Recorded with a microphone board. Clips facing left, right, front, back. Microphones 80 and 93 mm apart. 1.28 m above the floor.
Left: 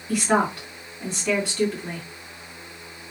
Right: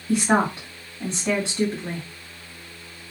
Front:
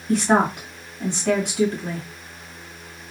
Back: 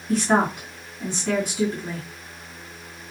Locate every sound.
0.1 s a woman speaking: 30° right, 1.9 m